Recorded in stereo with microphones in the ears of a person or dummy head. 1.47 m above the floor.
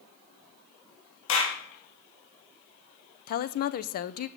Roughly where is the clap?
Left.